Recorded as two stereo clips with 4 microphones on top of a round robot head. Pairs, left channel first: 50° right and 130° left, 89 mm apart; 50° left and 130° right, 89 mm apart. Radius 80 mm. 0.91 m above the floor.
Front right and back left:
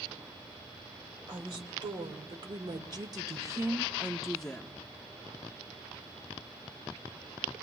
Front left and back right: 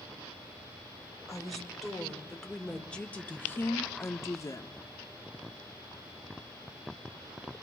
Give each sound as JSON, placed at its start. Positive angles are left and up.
{"t": 1.3, "sound": "a woman speaking", "azimuth_deg": 140, "distance_m": 2.0}